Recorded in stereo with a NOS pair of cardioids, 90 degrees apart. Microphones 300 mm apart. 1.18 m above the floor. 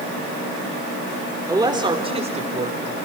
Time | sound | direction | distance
1.5 | a woman speaking | 10° right | 3.5 m